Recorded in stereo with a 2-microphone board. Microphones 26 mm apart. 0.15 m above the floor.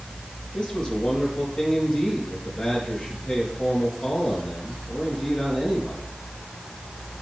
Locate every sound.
0.5 s a man speaking: 35° left (ahead or behind), 4.5 m